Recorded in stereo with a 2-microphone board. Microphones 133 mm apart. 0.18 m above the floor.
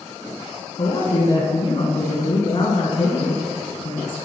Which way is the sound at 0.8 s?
45° left (ahead or behind).